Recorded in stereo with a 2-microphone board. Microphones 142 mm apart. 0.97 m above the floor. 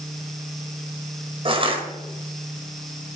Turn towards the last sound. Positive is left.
turn(degrees=-40)  # may be behind; listen again after turning